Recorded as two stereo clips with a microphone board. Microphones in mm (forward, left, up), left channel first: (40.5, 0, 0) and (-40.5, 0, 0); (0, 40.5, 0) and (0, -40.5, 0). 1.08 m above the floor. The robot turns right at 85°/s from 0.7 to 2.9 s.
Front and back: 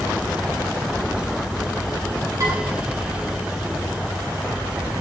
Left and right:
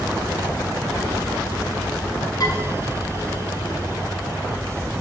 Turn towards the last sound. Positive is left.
turn(degrees=180)